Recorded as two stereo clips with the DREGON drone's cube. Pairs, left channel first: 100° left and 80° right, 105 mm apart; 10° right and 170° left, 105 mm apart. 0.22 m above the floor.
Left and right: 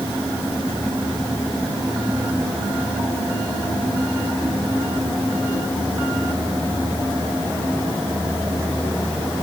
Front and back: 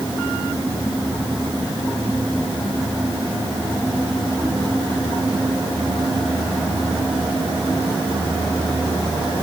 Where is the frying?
No frying in this recording.